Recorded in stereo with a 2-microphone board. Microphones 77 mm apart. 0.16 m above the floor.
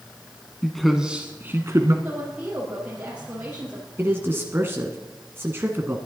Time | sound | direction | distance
0.6 | a man speaking | 5° left (ahead or behind) | 1.1 m
2.0 | a woman speaking | 20° right (ahead or behind) | 4.5 m
4.0 | a man speaking | 30° right (ahead or behind) | 1.4 m